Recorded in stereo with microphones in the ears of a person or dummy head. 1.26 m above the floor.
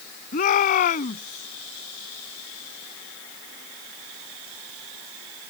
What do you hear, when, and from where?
0.3 s a shout: 45° left (ahead or behind)